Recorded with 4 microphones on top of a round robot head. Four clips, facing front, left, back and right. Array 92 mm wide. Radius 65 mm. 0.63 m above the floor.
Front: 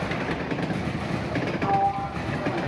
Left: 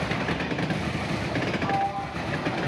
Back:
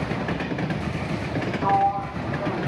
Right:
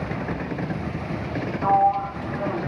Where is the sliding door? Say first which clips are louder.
Right 13 dB, back 3 dB; 130° right, 1.1 m.